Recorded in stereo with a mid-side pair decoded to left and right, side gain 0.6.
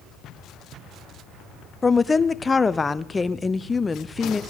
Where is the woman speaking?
20° left, 0.5 m.